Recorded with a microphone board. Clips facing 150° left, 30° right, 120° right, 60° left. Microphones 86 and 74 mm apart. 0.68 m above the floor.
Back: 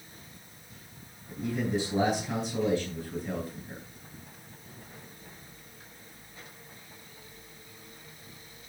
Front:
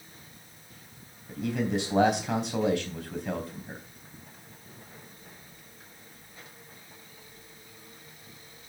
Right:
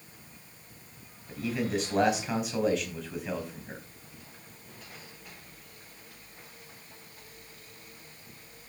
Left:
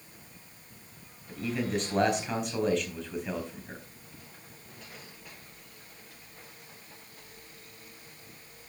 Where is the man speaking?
30° right, 4 m.